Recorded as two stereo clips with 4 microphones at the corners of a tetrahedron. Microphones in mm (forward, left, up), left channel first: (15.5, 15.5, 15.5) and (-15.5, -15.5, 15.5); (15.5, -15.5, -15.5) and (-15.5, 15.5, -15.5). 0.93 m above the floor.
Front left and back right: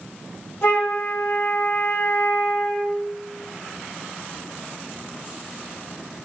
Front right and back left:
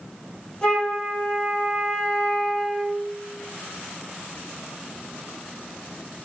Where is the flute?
20° left, 2.5 m.